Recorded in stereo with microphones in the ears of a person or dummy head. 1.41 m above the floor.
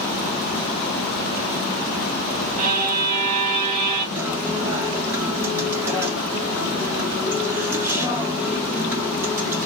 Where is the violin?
40° right (ahead or behind), 1.0 m.